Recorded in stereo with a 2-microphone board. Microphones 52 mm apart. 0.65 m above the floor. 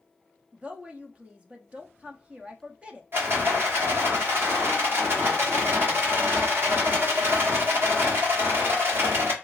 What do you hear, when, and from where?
0.5 s a woman speaking: 25° right (ahead or behind), 0.6 m
3.1 s a rattle: 50° right (ahead or behind), 1.3 m